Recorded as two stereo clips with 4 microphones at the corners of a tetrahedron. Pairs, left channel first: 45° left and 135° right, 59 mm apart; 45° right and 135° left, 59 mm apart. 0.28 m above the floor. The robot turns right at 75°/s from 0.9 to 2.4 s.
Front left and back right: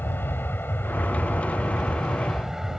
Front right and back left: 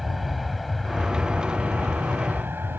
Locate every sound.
0.0 s an aircraft: 45° left; by 2.8 s 140° left